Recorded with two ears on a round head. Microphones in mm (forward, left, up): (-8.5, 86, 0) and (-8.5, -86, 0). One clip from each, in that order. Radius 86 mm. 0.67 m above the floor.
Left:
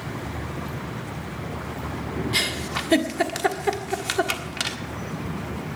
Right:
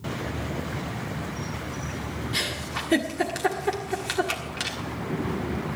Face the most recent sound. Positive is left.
turn(degrees=20)  # may be behind; listen again after turning